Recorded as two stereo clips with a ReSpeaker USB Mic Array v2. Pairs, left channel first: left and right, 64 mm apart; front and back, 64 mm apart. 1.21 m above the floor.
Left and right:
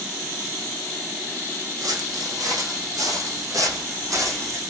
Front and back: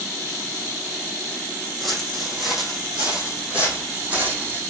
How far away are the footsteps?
About 3 m.